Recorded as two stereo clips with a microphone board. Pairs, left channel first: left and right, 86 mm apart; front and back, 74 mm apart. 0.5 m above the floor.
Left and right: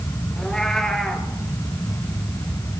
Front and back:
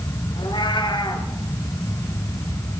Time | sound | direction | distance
0.4 | a cat meowing | 5° left | 3 m